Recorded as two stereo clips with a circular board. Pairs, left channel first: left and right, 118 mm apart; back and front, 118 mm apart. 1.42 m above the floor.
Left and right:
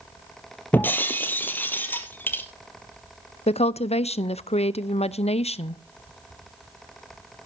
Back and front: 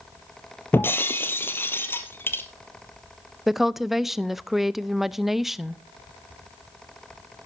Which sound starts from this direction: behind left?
Breaking glass, at 0.7 s.